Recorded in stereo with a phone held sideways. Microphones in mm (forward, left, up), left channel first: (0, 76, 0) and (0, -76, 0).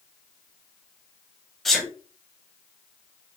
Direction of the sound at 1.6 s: Centre (ahead or behind).